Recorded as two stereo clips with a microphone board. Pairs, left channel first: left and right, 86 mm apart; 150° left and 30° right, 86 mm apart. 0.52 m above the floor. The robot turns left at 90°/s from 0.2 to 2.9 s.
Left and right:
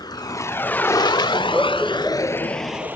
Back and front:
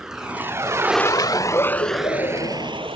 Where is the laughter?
135° right; by 2.9 s 85° left.